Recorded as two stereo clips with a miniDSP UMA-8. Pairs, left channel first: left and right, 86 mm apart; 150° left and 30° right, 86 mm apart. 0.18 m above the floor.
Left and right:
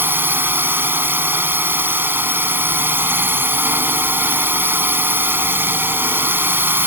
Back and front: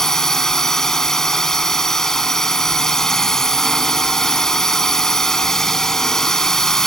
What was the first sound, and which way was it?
A drone, 130° right.